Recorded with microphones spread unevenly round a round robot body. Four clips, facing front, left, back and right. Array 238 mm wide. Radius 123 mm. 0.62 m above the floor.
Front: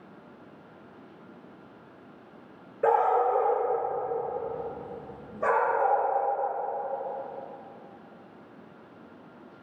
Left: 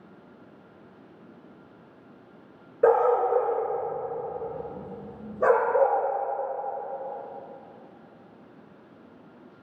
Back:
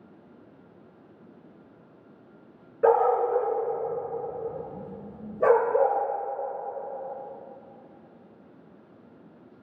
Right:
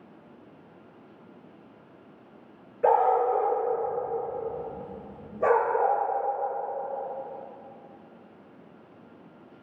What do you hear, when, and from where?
2.8 s a dog barking: 105° left, 3 m; by 6.0 s 145° left, 3 m